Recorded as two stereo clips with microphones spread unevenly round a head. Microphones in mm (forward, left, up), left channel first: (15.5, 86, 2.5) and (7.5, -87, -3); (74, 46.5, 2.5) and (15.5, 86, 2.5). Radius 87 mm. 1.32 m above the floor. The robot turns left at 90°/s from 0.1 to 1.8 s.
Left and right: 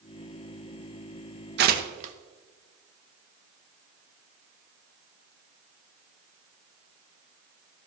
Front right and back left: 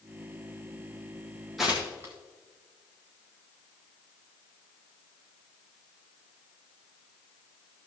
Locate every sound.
1.6 s tearing paper: 125° right, 0.8 m; by 2.1 s 145° right, 0.8 m